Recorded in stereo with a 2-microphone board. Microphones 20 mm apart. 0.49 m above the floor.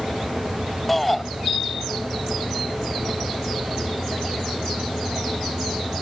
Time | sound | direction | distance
0.9 | a shout | 10° left (ahead or behind) | ?